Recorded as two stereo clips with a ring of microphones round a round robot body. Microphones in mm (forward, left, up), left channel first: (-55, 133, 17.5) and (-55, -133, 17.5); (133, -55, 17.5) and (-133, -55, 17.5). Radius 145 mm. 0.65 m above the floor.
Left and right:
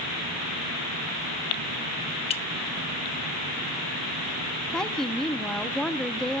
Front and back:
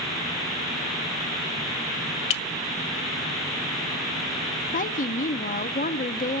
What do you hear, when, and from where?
2.3 s a clink: 20° left, 0.6 m
4.7 s a woman speaking: 5° left, 0.7 m